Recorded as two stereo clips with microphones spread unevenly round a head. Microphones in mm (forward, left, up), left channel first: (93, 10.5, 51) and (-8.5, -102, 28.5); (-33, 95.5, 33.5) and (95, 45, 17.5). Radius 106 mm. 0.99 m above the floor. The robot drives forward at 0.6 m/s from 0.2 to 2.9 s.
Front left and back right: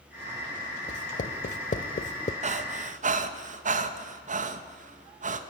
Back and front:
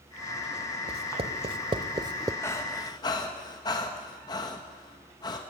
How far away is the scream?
No scream in this recording.